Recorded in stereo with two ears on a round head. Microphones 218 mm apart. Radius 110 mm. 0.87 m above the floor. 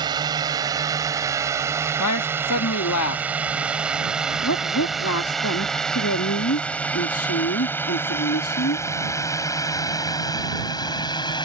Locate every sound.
0.0 s a drone: 20° right (ahead or behind); by 11.5 s 20° left (ahead or behind)
2.0 s a man speaking: 75° left (ahead or behind)
4.4 s a woman speaking: 70° left (ahead or behind)